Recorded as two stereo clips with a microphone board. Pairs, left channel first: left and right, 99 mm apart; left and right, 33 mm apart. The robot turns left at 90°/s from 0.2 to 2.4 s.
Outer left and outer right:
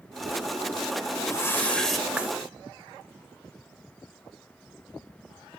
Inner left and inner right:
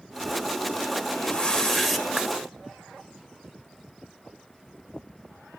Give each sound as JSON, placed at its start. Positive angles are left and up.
{"t": 1.1, "sound": "a whoosh", "azimuth_deg": 75, "distance_m": 1.5}